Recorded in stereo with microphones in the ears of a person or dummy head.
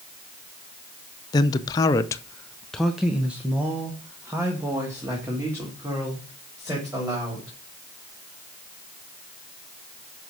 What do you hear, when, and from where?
1.3 s a man speaking: 25° left (ahead or behind), 0.8 m; by 7.5 s 15° right (ahead or behind), 3.5 m